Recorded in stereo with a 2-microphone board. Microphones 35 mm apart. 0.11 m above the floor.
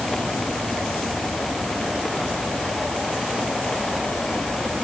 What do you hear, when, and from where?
Only background noise.